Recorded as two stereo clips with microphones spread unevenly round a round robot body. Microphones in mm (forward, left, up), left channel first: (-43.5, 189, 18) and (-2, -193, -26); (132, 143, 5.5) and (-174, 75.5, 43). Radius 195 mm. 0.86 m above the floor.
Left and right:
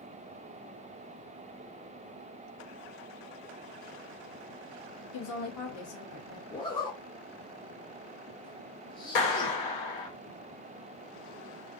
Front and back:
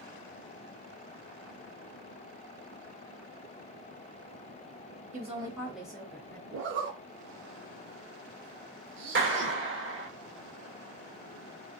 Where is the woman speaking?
135° left, 0.7 m; by 6.4 s 90° left, 1.2 m.